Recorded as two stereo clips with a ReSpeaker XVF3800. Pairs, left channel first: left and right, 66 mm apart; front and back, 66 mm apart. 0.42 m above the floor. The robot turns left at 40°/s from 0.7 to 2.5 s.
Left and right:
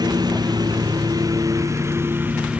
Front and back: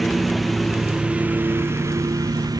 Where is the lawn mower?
90° right; by 2.6 s 160° right.